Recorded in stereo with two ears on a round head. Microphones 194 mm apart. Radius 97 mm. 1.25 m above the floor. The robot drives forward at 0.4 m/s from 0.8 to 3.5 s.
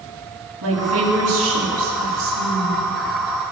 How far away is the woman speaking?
About 9 m.